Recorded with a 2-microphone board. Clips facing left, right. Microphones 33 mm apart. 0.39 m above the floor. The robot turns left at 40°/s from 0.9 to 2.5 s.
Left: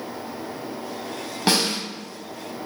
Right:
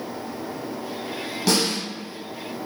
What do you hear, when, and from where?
1.5 s a snare drum: 35° left (ahead or behind), 1.2 m; by 1.8 s 45° left (ahead or behind), 1.2 m